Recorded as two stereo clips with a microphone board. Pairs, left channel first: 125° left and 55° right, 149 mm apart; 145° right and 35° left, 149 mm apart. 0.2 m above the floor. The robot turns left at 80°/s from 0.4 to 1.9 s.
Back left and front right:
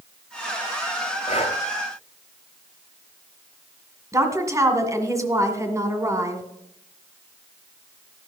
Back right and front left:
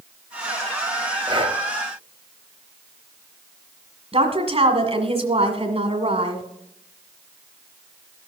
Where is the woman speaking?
5° left, 1.8 m.